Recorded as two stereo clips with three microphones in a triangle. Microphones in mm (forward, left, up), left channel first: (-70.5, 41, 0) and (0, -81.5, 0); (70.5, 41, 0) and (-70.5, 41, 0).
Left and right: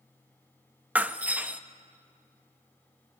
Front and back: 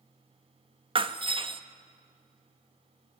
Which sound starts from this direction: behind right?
Breaking glass, at 0.9 s.